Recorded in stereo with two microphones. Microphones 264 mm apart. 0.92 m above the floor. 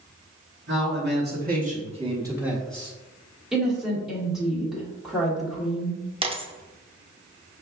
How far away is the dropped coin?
About 0.5 m.